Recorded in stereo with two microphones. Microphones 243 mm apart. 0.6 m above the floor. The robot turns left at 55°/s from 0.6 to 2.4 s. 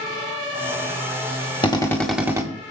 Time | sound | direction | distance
1.6 | a drill | 25° left | 1.3 m